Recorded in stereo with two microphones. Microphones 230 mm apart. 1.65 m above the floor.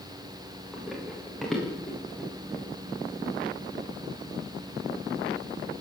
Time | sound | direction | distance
0.7 | running footsteps | centre (ahead or behind) | 8.5 m